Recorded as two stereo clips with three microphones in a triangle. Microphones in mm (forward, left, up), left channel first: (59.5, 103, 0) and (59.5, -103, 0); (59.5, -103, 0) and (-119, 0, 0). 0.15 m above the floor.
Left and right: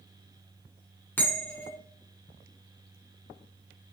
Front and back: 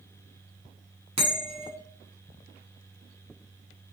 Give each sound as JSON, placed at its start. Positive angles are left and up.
{"t": 1.2, "sound": "a bell", "azimuth_deg": 160, "distance_m": 1.3}